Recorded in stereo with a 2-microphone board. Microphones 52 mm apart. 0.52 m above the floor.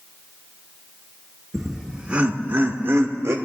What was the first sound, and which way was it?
Laughter, centre (ahead or behind).